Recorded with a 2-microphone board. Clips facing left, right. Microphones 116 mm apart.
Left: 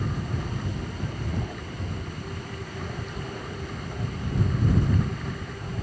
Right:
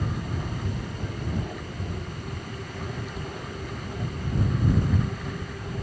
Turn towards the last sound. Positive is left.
No sound to turn to.